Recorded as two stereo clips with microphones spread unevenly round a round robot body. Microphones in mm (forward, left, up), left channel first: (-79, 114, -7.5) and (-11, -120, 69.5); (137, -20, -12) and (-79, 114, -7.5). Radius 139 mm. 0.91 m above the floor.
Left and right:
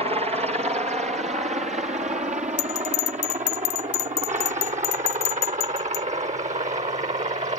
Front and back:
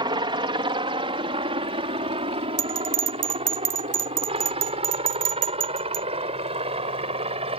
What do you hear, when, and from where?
0.0 s a helicopter: 150° right; by 7.6 s 140° right
2.6 s a bell: 105° left